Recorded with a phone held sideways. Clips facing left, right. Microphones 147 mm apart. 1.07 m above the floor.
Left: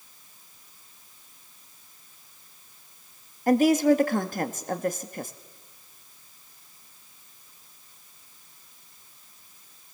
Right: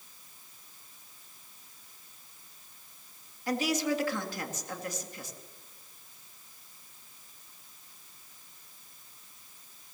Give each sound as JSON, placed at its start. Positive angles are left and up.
{"t": 3.5, "sound": "a woman speaking", "side_deg": 55, "distance_m": 1.9}